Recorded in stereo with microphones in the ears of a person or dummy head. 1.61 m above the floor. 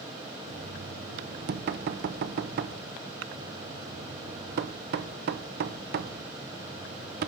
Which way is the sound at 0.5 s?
55° right (ahead or behind).